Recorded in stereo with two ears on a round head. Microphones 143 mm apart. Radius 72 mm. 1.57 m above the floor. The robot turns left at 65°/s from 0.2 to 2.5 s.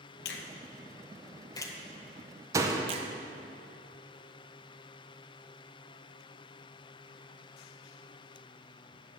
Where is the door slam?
20° right (ahead or behind), 0.6 m.